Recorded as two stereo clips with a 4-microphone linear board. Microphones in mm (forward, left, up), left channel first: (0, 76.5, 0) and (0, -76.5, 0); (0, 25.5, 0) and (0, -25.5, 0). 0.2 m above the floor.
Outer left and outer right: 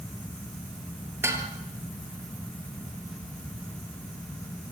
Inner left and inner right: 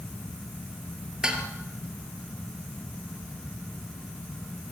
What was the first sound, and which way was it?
Dishes clattering, 15° right (ahead or behind).